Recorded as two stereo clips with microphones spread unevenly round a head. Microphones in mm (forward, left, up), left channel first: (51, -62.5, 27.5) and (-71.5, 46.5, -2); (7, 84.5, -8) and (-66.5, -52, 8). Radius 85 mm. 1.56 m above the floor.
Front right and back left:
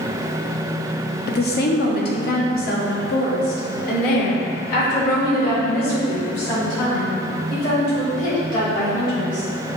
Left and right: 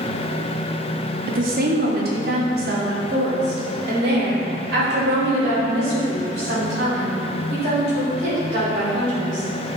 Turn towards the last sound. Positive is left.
turn(degrees=-80)